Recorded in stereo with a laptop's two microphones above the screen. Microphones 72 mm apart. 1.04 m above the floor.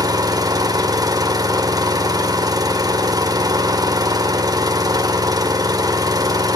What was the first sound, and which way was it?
An engine running, 65° right (ahead or behind).